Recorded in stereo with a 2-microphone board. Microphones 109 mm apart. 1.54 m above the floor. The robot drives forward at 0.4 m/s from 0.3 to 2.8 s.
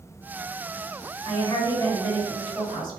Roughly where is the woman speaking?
Left.